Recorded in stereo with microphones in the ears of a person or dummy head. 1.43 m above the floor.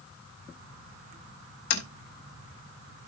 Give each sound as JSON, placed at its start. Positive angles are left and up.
{"t": 1.7, "sound": "tapping", "side_deg": 85, "distance_m": 4.5}